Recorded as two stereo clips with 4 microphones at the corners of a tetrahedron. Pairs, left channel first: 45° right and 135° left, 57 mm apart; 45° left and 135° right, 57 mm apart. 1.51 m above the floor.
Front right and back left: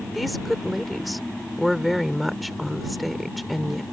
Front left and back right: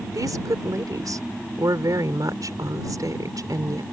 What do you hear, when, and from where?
0.1 s a woman speaking: 135° right